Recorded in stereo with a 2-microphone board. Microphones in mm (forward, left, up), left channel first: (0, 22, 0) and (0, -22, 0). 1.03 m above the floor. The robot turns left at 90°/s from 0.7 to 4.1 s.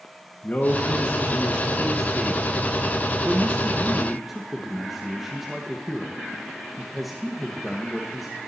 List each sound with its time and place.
0.4 s a man speaking: 40° left (ahead or behind), 1.1 m; by 8.3 s 5° right (ahead or behind), 1.1 m